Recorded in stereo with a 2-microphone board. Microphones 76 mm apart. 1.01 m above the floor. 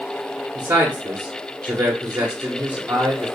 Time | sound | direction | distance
0.6 | a man speaking | 30° right (ahead or behind) | 0.8 m